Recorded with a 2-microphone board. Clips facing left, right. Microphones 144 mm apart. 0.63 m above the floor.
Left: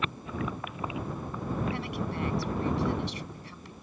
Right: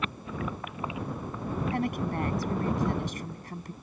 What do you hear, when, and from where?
1.7 s a woman speaking: 45° right (ahead or behind)